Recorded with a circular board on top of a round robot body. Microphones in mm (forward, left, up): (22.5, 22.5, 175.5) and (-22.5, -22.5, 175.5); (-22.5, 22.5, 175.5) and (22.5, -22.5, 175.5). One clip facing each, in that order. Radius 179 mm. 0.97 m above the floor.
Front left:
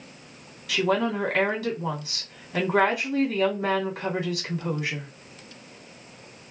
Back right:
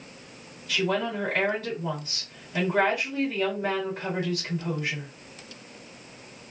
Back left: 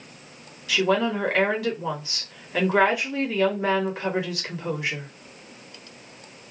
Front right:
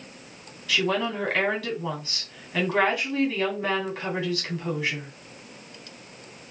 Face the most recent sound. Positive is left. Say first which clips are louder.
# front left 3 dB, back left 3 dB
turn(degrees=60)